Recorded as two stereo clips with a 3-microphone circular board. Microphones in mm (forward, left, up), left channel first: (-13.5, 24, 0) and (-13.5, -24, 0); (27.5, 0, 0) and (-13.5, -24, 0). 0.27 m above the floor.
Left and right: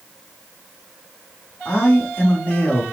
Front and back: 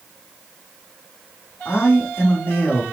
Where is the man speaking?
25° left, 1.6 m.